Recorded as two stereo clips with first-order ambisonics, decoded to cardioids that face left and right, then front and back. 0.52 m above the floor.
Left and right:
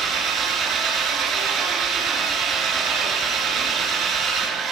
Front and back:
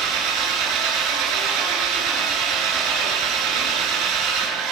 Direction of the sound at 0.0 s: 145° right.